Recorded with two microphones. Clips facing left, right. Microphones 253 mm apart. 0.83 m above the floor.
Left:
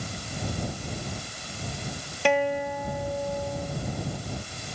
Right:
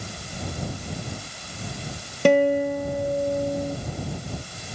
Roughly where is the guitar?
Right.